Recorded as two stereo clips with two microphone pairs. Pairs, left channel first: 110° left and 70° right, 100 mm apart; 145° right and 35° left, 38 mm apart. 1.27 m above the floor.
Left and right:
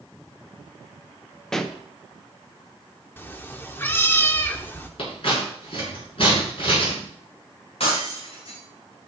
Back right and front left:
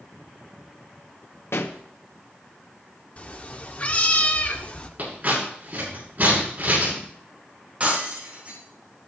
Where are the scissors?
80° left, 8.5 m.